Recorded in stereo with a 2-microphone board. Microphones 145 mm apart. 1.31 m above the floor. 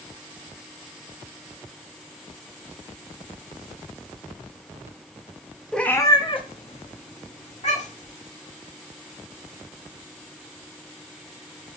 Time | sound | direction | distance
5.7 | a cat meowing | 5° left (ahead or behind) | 0.7 m